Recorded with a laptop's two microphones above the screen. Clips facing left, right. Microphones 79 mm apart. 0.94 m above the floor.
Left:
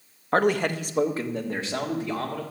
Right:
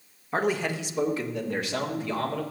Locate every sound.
0.3 s a man speaking: 65° left (ahead or behind), 1.0 m; by 2.4 s 20° left (ahead or behind), 2.5 m